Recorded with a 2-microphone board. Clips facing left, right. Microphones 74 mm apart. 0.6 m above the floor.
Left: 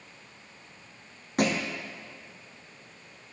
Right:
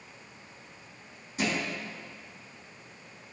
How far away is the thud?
About 1.4 m.